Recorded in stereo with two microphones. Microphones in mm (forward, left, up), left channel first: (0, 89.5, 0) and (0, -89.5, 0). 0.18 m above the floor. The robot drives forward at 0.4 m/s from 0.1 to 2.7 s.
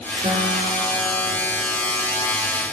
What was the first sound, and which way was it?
A guitar, 35° right (ahead or behind).